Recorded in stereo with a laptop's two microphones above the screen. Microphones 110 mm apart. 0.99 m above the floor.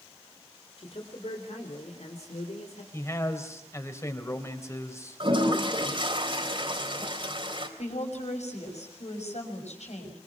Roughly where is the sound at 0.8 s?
Left.